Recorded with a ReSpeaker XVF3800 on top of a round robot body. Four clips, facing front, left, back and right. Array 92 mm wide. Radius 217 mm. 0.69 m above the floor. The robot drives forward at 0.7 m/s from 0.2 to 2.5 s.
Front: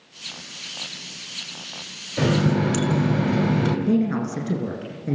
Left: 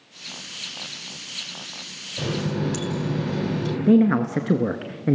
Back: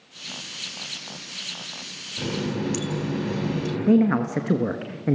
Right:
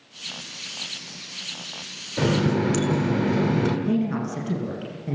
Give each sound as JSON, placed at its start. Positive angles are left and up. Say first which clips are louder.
{"t": 2.2, "sound": "a running tap", "louder": "right 5 dB, front 7 dB", "azimuth_deg": -50, "distance_m": 2.5}
{"t": 3.9, "sound": "a man speaking", "louder": "left 7 dB, back 3 dB", "azimuth_deg": 130, "distance_m": 1.4}